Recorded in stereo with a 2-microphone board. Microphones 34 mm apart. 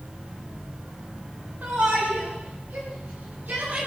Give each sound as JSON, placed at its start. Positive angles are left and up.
{"t": 1.6, "sound": "a shout", "side_deg": -90, "distance_m": 6.0}